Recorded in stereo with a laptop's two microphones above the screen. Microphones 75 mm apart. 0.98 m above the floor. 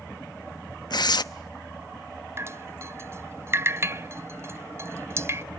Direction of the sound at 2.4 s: 35° right (ahead or behind).